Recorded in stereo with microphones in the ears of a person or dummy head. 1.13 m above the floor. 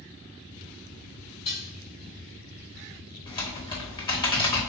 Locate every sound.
1.4 s dishes clattering: 40° left (ahead or behind), 1.9 m
3.3 s typing on a keyboard: 25° left (ahead or behind), 0.8 m